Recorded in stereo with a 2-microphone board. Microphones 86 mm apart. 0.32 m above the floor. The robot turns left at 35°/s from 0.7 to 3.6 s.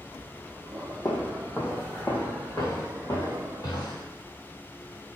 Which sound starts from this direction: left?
Footsteps, at 1.1 s.